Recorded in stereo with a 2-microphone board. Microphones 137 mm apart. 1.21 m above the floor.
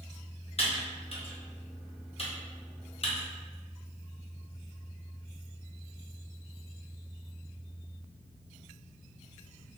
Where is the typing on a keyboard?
45° left (ahead or behind), 0.8 m.